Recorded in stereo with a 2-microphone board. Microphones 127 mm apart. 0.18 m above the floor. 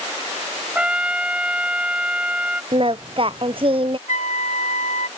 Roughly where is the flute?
Left.